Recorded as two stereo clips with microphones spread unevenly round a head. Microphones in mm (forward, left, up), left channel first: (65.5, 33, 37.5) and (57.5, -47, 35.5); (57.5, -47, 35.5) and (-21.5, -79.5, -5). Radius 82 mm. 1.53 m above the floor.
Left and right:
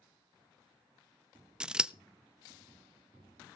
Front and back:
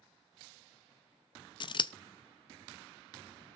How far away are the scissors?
About 0.5 m.